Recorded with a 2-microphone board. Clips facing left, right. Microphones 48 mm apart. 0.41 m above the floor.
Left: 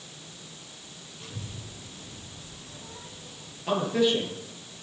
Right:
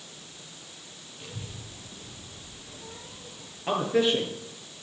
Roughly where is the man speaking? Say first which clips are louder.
Even; centre.